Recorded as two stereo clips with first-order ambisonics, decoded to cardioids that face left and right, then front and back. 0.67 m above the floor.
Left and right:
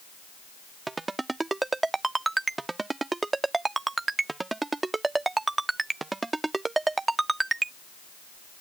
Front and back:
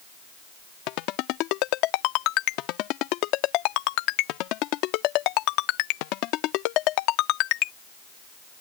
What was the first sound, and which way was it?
A ringtone, 10° right.